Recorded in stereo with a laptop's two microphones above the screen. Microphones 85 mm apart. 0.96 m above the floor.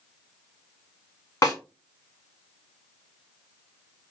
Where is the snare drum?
45° left (ahead or behind), 1.8 m.